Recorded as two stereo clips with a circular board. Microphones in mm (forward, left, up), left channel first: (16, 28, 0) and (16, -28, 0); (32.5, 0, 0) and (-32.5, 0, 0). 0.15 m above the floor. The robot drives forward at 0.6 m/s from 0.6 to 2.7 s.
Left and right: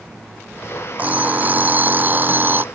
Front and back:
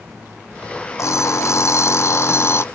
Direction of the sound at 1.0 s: 30° right.